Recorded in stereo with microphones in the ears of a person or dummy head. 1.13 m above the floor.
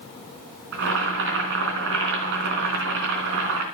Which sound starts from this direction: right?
Boiling, at 0.7 s.